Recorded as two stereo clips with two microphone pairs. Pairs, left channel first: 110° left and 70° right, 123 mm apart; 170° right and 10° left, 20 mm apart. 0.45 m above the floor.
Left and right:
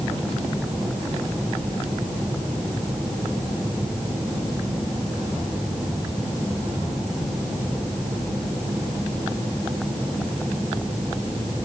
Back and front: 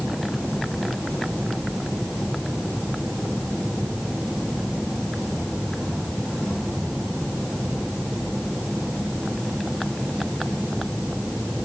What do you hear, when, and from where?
Only background noise.